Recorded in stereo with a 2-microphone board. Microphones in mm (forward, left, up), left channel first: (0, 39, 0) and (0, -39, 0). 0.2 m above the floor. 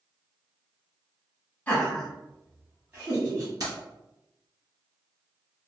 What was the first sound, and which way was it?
Laughter, 20° left (ahead or behind).